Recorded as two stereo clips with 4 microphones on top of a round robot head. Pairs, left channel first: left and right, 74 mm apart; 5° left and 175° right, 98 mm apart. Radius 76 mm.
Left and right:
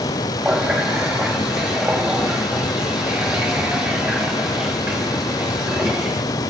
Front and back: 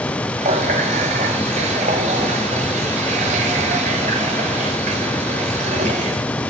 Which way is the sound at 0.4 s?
170° right.